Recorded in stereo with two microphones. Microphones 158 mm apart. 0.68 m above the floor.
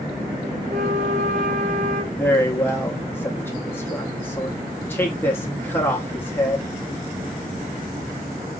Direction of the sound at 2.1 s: 15° left (ahead or behind).